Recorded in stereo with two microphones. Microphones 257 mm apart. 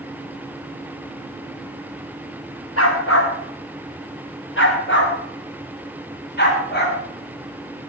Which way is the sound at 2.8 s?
60° left (ahead or behind).